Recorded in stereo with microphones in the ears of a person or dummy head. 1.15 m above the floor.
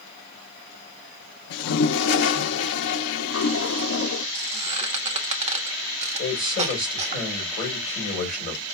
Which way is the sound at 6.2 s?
40° left (ahead or behind).